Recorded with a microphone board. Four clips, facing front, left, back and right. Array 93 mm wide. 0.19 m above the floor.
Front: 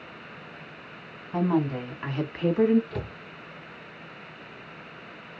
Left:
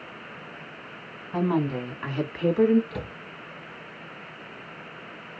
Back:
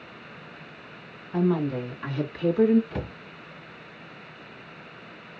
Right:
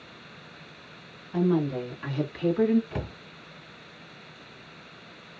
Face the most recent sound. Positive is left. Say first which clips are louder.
# even, back 1 dB
turn(degrees=-115)